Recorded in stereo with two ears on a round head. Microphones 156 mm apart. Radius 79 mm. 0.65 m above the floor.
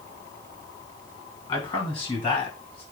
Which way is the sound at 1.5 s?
25° left (ahead or behind).